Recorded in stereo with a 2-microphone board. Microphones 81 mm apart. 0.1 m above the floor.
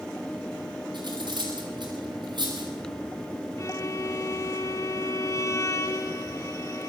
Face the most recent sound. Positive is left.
turn(degrees=35)  # may be behind; listen again after turning